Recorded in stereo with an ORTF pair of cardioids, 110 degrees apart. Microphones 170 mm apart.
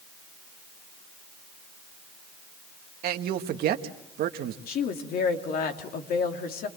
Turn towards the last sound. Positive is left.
turn(degrees=65)